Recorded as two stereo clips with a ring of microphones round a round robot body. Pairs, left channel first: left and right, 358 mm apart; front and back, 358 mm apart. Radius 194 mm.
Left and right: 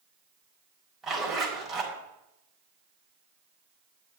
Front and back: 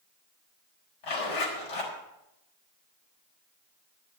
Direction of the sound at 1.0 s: Straight ahead.